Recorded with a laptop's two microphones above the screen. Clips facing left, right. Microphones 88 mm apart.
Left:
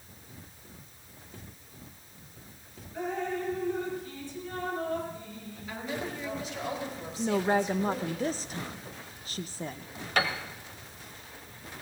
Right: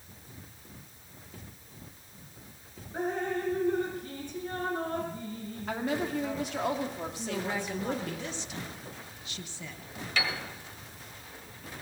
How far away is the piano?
About 1.2 m.